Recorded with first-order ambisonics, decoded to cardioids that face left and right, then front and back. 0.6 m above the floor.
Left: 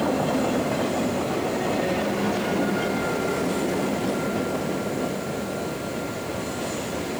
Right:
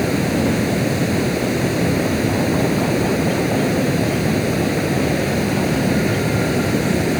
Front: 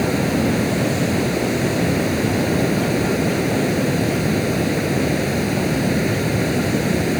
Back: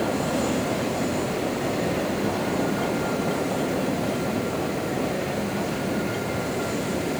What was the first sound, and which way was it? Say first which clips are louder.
Running water: right 4 dB, front 4 dB; 50° right.